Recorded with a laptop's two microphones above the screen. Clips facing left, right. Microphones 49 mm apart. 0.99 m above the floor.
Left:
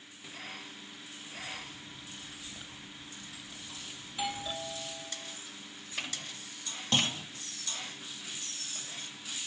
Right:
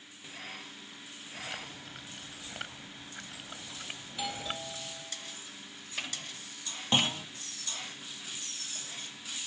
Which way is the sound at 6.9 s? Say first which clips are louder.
Right 2 dB; 20° right (ahead or behind).